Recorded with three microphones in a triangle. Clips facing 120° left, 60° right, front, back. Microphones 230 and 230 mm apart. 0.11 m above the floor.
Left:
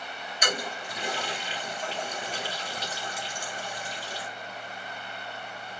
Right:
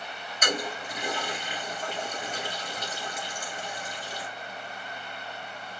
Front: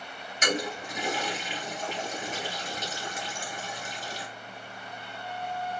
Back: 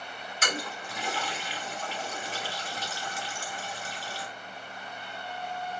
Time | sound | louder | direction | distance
0.4 | a toilet flushing | right 2 dB, front 6 dB | 50° left | 1.8 m